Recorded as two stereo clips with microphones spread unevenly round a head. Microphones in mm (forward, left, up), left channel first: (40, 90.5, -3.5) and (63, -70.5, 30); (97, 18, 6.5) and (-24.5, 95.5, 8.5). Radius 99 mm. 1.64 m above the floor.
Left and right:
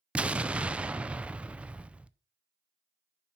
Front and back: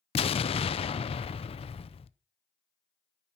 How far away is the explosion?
About 0.5 m.